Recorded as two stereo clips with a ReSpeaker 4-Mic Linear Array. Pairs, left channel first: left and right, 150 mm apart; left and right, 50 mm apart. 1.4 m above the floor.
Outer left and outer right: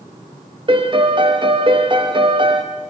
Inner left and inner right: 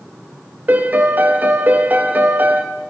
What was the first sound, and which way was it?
A piano, 35° right (ahead or behind).